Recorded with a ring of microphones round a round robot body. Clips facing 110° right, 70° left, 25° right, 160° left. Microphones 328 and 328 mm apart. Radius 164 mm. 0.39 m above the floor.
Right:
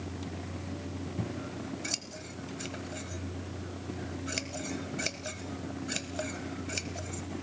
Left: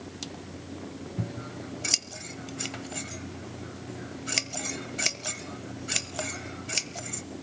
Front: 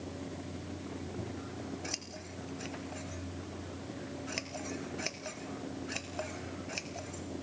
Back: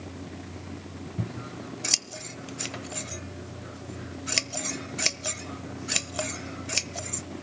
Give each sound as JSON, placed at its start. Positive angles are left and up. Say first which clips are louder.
{"t": 1.2, "sound": "scissors", "louder": "left 1 dB, back 4 dB", "azimuth_deg": 140, "distance_m": 1.0}